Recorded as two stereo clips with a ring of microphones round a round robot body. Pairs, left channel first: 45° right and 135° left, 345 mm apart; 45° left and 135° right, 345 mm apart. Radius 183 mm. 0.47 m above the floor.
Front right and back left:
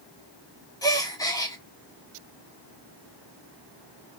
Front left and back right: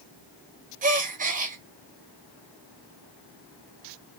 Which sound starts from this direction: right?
A gasp, at 0.8 s.